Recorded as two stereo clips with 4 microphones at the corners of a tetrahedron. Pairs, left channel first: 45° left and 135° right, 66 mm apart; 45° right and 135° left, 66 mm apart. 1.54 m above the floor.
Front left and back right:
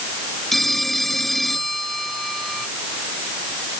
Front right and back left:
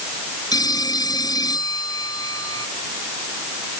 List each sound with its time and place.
0.5 s a phone ringing: 40° right